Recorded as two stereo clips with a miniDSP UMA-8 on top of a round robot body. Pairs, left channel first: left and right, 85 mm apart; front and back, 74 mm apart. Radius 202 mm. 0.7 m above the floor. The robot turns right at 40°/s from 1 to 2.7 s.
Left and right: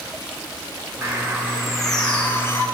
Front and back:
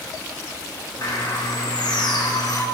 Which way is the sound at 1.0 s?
30° right.